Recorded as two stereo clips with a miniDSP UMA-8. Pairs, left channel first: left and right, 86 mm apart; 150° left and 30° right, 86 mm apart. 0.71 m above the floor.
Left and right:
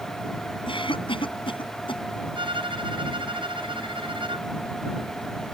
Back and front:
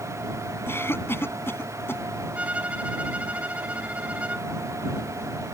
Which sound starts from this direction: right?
A violin, at 2.4 s.